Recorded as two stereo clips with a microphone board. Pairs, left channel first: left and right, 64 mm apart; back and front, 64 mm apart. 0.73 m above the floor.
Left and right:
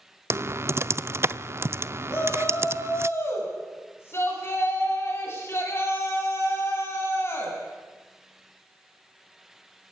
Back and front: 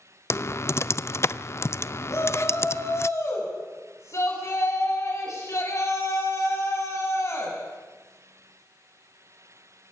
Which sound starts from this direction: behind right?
Typing on a keyboard, at 0.3 s.